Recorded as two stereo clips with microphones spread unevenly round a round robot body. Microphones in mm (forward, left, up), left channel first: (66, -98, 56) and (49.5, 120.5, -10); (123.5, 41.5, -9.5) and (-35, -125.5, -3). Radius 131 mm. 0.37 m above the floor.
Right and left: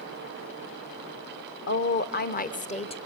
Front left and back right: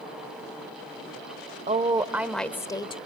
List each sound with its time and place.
1.7 s a woman speaking: 100° right, 1.0 m; by 3.0 s 10° right, 1.2 m